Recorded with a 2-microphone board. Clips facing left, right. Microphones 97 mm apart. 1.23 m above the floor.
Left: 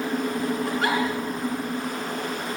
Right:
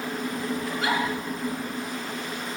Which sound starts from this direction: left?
A giggle, at 0.7 s.